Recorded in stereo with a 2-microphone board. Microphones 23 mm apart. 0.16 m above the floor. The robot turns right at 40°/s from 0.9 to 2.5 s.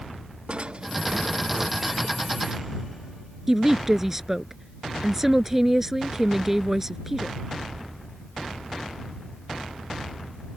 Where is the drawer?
55° right; by 2.1 s 5° right.